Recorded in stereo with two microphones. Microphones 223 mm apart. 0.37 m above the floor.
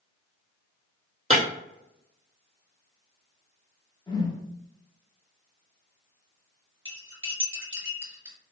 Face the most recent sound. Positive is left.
turn(degrees=-65)  # may be behind; listen again after turning